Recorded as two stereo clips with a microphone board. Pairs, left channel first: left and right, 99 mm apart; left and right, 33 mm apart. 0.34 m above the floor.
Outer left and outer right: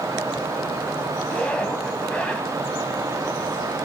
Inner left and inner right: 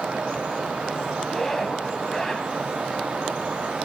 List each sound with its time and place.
1.2 s a zipper: 15° left (ahead or behind), 1.5 m